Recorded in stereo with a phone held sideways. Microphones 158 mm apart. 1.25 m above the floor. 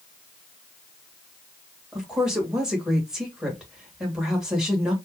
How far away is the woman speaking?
About 1.5 m.